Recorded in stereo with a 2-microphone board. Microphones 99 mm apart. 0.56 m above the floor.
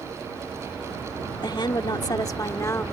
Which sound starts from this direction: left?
A woman speaking, at 1.4 s.